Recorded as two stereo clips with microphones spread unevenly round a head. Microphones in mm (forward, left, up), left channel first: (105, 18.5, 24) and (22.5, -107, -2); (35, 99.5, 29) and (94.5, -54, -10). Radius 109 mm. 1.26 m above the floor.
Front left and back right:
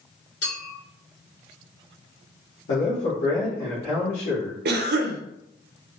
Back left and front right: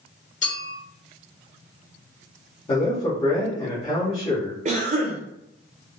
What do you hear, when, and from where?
0.4 s a clink: 75° left, 1.8 m
2.7 s a man speaking: 55° left, 1.1 m
4.7 s a cough: 125° right, 0.6 m